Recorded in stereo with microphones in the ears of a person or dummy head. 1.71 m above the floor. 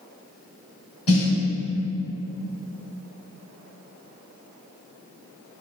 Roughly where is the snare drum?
Left.